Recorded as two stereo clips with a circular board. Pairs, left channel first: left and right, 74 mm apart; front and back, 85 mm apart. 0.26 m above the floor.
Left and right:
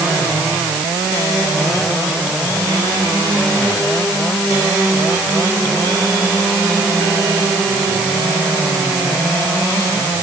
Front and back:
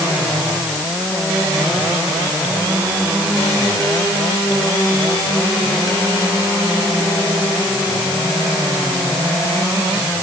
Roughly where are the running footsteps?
I don't hear running footsteps.